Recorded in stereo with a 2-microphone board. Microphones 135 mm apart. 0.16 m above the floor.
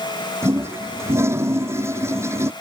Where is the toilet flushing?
20° right (ahead or behind).